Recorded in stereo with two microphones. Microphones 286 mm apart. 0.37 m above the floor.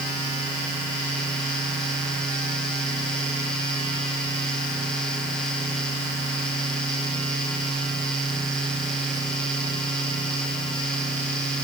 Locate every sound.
Only background noise.